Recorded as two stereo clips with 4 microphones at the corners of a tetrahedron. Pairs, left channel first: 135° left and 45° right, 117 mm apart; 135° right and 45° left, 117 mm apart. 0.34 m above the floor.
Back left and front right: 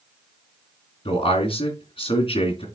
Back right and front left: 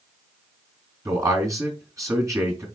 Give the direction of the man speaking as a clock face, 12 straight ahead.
8 o'clock.